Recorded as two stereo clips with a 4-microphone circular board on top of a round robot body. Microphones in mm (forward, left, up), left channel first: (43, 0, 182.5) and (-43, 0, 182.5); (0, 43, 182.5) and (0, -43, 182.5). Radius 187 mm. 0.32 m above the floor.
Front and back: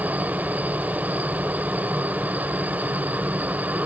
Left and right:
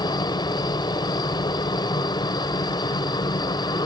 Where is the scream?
I don't hear a scream.